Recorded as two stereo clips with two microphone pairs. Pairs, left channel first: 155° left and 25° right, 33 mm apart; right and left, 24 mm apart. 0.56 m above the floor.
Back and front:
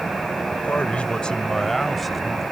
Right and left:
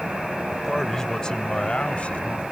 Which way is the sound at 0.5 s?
175° right.